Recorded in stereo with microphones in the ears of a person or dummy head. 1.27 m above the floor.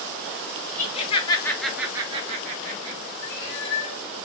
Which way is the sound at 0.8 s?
40° left (ahead or behind).